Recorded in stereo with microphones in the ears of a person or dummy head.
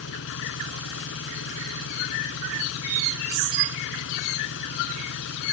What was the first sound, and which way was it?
An engine running, 65° left (ahead or behind).